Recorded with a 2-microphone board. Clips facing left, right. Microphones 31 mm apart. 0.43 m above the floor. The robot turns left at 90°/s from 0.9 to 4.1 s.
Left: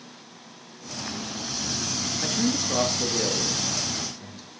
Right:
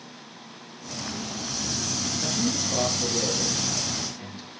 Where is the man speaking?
25° left (ahead or behind), 6.5 m; by 4.5 s 15° right (ahead or behind), 6.5 m.